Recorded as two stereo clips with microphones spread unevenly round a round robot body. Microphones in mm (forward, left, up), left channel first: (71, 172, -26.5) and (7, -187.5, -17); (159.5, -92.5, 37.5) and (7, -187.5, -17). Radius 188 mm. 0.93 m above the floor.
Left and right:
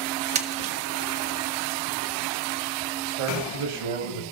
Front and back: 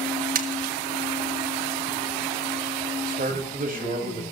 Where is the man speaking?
110° right, 7 m.